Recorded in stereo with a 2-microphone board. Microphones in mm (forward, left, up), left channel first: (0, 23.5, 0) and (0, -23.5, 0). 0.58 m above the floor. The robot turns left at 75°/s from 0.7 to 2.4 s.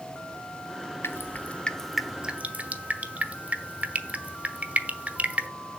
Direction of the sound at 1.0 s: 60° left (ahead or behind).